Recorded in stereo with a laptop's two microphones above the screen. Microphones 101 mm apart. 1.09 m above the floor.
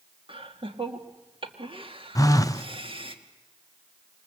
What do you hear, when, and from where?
0.3 s laughter: 60° right (ahead or behind), 2 m
2.1 s a phone buzzing: 35° left (ahead or behind), 0.6 m